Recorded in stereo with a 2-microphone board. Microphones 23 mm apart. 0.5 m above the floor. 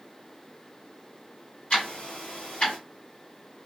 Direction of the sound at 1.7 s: 50° left (ahead or behind).